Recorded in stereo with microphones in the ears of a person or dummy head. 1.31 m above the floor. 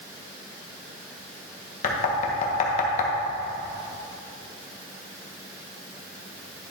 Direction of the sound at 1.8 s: 45° left (ahead or behind).